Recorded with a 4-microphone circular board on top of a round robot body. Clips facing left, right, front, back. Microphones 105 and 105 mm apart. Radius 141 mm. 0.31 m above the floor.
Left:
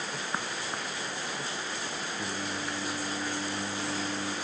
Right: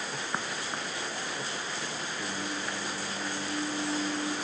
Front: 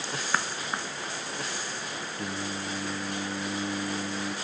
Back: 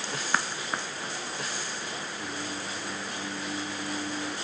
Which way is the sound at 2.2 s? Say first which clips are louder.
Even, front 5 dB; 30° left.